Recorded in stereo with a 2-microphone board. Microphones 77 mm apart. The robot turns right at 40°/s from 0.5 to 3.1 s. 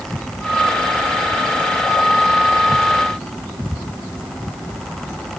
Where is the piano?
No piano in this recording.